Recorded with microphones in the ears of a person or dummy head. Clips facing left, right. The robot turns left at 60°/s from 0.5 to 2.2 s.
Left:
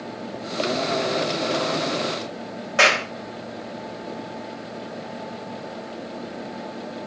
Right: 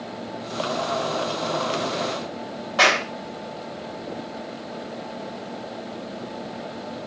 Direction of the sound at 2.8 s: 25° left (ahead or behind).